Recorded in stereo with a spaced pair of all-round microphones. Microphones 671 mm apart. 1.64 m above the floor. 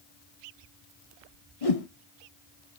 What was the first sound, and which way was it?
A whoosh, 55° left (ahead or behind).